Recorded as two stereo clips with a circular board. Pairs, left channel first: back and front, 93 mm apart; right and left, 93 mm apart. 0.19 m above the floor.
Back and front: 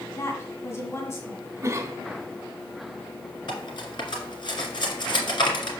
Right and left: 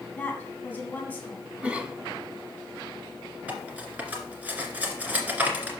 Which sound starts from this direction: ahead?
A cough, at 1.6 s.